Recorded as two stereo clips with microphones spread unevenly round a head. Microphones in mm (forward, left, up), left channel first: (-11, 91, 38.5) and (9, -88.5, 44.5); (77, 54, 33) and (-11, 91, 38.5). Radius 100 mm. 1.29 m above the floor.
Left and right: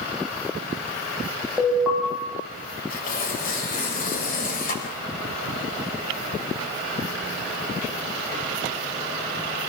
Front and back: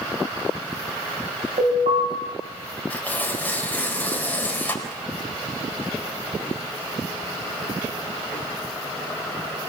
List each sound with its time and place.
1.6 s an alarm: 170° right, 7.5 m
2.9 s tearing paper: 50° left, 4.5 m